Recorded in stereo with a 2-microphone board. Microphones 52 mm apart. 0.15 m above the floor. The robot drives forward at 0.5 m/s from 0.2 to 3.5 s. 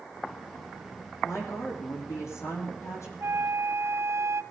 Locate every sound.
1.2 s a woman speaking: 75° left (ahead or behind), 7 m; by 3.1 s 80° left, 7 m
3.2 s a flute: 60° right (ahead or behind), 0.6 m; by 4.4 s 70° right (ahead or behind), 0.6 m